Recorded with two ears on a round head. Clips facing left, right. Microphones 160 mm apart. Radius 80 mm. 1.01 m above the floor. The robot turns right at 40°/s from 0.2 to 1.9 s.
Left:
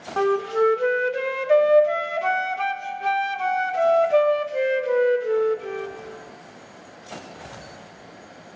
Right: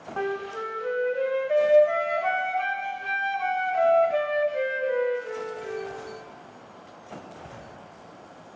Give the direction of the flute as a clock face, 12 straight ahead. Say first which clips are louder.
Left 10 dB; 10 o'clock.